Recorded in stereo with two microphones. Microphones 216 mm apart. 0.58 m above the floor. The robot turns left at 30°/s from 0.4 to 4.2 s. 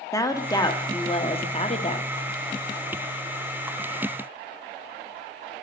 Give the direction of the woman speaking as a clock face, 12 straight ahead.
7 o'clock.